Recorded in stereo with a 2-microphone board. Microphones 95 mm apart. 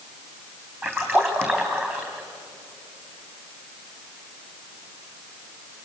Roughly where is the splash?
Right.